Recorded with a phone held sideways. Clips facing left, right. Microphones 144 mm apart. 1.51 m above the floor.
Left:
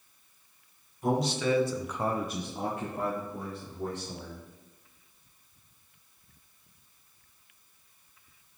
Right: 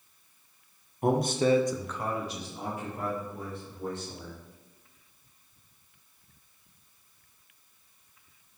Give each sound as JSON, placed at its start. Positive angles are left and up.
{"t": 1.0, "sound": "a man speaking", "side_deg": -60, "distance_m": 1.1}